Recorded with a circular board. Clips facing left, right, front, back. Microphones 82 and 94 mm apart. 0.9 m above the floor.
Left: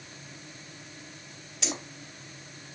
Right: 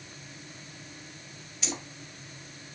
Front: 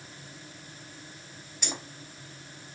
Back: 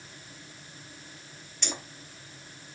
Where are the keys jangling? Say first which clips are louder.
Left 2 dB, back 1 dB; 80° left, 0.8 m.